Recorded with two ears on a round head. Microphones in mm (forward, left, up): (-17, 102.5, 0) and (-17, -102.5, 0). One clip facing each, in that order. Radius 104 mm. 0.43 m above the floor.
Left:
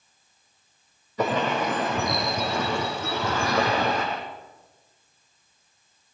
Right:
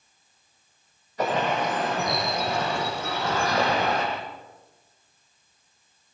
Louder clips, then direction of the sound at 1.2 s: Left 1 dB; 80° left.